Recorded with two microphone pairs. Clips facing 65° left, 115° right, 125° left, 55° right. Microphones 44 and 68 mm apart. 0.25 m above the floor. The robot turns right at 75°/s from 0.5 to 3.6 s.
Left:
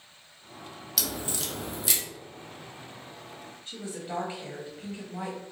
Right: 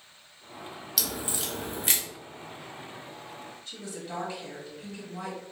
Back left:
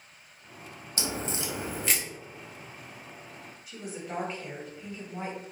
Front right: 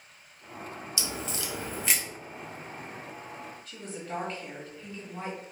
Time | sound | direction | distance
1.0 | a crack | 145° left | 0.6 m
3.7 | a woman speaking | 60° left | 1.0 m